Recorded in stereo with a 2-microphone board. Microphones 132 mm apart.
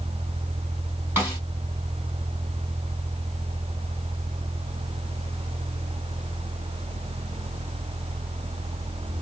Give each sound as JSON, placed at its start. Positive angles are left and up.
{"t": 1.2, "sound": "a snare drum", "side_deg": -15, "distance_m": 2.5}